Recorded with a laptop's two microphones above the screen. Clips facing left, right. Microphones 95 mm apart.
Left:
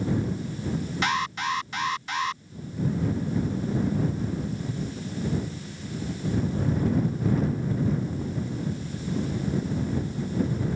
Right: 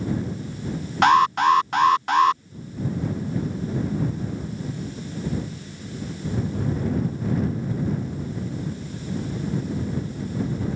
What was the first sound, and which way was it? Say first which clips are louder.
An alarm: right 13 dB; 65° right (ahead or behind).